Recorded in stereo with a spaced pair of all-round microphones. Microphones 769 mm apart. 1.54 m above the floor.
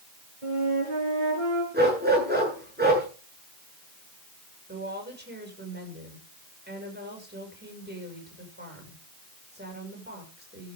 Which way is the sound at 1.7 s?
10° right (ahead or behind).